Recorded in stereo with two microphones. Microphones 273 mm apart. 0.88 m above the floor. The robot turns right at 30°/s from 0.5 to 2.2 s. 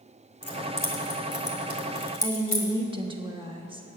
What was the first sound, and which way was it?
Keys jangling, 60° left (ahead or behind).